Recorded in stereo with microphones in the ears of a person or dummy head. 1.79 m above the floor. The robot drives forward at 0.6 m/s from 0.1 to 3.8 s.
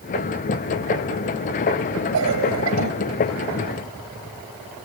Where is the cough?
85° right.